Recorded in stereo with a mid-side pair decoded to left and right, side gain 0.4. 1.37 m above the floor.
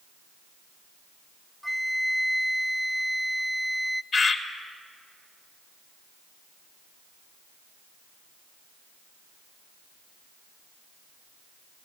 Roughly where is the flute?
Ahead.